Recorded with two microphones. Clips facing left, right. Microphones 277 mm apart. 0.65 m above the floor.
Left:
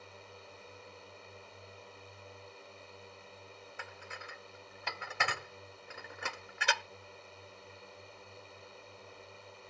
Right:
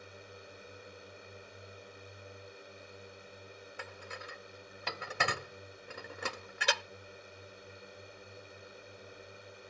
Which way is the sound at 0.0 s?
15° right (ahead or behind).